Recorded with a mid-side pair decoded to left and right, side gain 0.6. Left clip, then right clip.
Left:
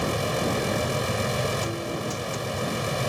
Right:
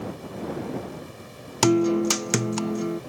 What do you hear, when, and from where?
0.0 s a fan: 70° left
1.6 s a guitar: 70° right